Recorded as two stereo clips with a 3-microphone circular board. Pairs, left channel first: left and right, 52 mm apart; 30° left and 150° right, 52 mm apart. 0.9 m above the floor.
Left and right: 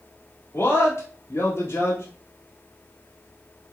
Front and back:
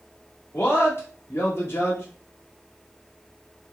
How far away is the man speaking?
About 2.0 m.